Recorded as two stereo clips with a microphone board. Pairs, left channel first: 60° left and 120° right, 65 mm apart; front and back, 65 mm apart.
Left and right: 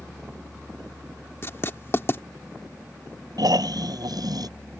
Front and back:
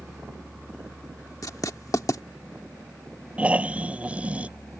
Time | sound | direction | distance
1.4 | writing | 15° left | ?
3.4 | snoring | 110° right | ?